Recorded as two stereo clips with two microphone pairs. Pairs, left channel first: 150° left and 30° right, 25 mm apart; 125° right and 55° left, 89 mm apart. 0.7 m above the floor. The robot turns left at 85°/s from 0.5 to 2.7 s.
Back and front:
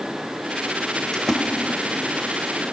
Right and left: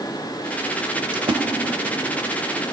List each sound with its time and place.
1.1 s a splash: 80° left, 0.8 m; by 1.4 s 55° left, 0.8 m